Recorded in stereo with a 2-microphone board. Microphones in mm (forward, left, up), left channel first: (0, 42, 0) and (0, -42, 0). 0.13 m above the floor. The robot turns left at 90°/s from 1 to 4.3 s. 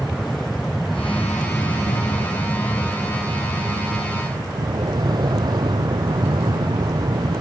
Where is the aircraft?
Straight behind; by 7.4 s 120° right.